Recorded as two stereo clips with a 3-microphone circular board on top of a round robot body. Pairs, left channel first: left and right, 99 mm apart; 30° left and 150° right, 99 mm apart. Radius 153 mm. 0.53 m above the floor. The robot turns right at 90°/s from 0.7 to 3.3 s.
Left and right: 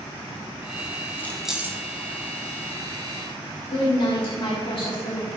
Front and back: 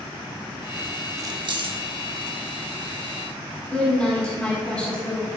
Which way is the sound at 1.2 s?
155° left.